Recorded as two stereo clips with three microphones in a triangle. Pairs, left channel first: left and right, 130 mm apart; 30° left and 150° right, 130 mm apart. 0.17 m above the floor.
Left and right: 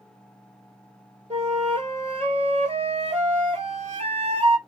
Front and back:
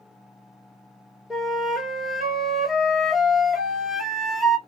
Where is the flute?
60° right, 0.9 m.